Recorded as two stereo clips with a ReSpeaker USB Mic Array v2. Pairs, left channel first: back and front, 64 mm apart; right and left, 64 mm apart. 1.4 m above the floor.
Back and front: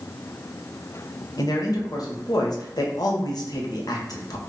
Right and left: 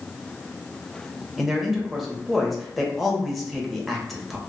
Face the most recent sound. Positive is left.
turn(degrees=180)